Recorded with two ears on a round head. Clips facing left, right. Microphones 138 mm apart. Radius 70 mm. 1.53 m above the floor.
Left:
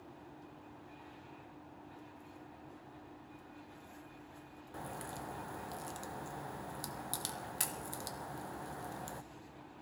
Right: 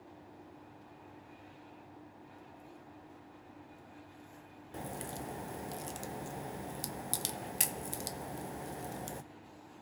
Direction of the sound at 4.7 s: 20° right (ahead or behind).